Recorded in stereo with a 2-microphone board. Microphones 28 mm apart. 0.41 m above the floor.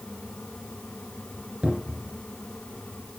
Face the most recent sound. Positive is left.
turn(degrees=-55)  # may be behind; listen again after turning